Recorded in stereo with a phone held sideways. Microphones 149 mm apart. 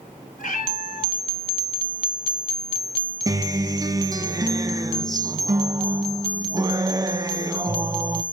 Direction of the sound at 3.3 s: 25° right (ahead or behind).